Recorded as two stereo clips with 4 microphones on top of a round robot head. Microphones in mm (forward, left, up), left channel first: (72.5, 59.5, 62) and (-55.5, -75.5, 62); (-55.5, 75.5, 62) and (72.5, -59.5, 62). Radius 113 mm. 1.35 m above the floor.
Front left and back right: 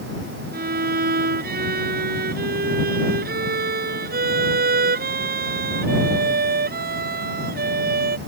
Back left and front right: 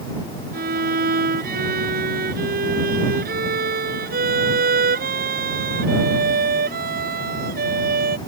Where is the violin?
90° right.